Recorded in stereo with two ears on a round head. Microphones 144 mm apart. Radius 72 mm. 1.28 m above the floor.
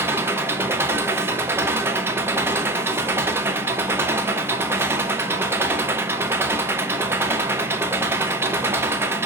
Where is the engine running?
15° right (ahead or behind), 0.8 m.